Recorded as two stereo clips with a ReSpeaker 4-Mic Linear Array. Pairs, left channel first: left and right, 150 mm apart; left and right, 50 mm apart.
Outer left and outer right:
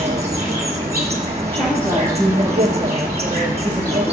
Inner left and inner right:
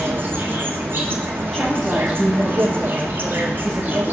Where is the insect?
45° right (ahead or behind), 1.2 m.